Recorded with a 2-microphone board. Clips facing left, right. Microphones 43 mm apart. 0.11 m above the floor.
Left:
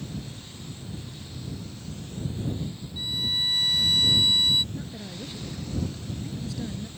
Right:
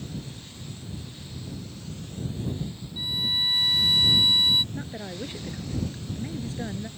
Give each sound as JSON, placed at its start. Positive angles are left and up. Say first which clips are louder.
{"t": 3.0, "sound": "a violin", "louder": "right 1 dB", "side_deg": -10}
{"t": 4.7, "sound": "a woman speaking", "louder": "right 2 dB", "side_deg": -35}